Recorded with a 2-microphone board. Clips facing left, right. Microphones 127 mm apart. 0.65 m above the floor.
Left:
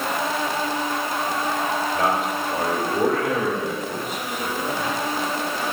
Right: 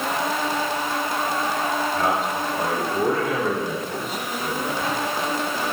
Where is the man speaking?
55° left (ahead or behind), 2 m.